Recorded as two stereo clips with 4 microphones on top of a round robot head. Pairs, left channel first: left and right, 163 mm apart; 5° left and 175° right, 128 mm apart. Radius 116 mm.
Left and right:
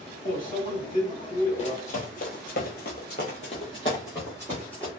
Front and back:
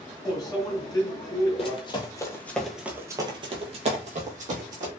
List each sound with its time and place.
0.2 s a microwave: 65° left, 1.3 m
1.6 s running footsteps: 45° left, 0.8 m; by 4.9 s 175° left, 1.2 m